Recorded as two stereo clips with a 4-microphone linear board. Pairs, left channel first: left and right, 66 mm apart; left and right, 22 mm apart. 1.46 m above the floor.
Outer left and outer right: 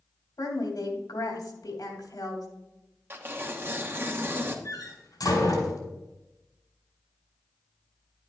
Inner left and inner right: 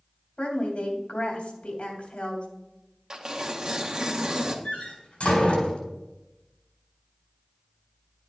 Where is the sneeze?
I don't hear a sneeze.